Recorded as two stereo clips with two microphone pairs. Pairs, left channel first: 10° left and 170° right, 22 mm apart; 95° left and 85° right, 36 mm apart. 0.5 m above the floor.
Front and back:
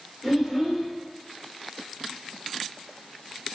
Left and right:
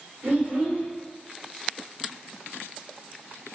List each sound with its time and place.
0.2 s a child speaking: 65° right, 1.0 m